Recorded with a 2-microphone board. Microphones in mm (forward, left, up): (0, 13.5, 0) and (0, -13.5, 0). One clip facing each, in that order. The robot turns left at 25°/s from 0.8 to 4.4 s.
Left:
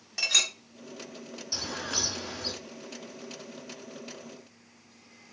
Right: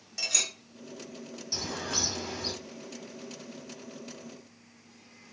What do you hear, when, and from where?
0.2 s a clink: 25° left (ahead or behind), 0.6 m
1.5 s a bird: 5° left (ahead or behind), 0.8 m; by 2.5 s 15° right (ahead or behind), 0.8 m